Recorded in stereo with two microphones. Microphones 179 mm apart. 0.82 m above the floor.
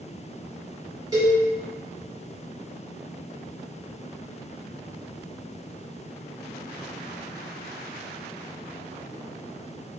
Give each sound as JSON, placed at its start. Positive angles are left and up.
{"t": 1.1, "sound": "a cowbell", "side_deg": -20, "distance_m": 1.3}